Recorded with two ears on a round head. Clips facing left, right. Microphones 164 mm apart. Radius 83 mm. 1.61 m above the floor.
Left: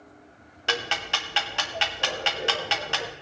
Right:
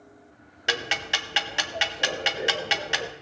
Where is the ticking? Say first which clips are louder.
Left 1 dB; 15° right (ahead or behind), 0.6 m.